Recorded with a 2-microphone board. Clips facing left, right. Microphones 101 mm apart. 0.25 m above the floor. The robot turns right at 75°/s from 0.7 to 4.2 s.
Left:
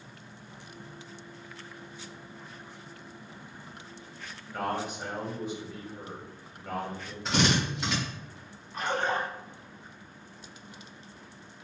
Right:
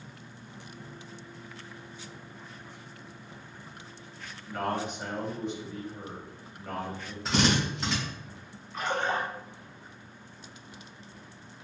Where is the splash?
35° left (ahead or behind), 1.9 m.